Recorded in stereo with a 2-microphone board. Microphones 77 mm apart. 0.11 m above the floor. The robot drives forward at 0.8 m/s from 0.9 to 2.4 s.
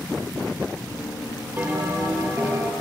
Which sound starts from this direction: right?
A bell, at 1.6 s.